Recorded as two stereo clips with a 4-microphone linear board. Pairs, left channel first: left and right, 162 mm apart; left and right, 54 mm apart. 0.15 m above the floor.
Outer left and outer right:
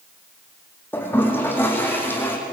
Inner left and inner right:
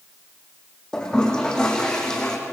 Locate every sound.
0.9 s a toilet flushing: 15° left (ahead or behind), 4 m